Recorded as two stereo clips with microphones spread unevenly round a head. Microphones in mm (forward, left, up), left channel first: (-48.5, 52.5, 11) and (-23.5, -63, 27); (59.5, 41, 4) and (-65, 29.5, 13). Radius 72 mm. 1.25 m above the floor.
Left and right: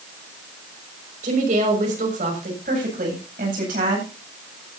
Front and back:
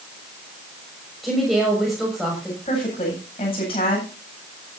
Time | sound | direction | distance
1.2 | a woman speaking | 85° right | 6 m
2.6 | a woman speaking | 50° right | 8.5 m